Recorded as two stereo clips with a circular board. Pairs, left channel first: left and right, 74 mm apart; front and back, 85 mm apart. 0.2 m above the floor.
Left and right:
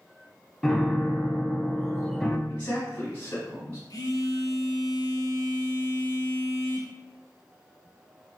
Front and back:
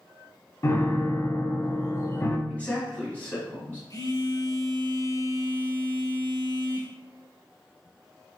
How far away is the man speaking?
About 1.3 m.